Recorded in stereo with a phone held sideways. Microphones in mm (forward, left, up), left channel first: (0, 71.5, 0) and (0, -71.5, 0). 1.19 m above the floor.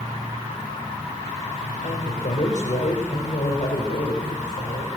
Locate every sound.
0.0 s an insect: 25° right (ahead or behind), 10 m
1.8 s a woman speaking: 65° left (ahead or behind), 4 m